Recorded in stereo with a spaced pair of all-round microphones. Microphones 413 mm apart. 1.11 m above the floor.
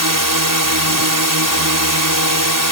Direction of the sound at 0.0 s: 50° right (ahead or behind).